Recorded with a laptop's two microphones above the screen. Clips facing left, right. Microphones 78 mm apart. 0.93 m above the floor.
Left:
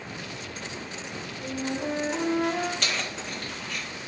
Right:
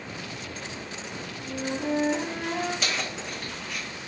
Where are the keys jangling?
5° right (ahead or behind), 1.9 m.